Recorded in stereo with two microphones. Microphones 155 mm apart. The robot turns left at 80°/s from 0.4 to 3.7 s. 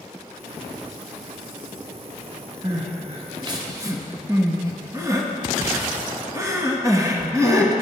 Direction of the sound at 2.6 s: 30° right (ahead or behind).